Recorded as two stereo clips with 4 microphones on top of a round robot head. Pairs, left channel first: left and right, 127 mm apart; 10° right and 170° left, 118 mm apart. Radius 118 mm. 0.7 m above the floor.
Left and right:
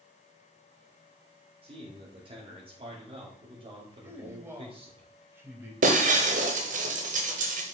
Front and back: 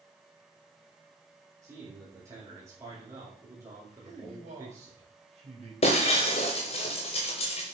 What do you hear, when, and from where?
1.6 s a man speaking: 125° right, 2.5 m
4.0 s a man speaking: 160° right, 4 m
5.8 s breaking glass: 55° right, 1.0 m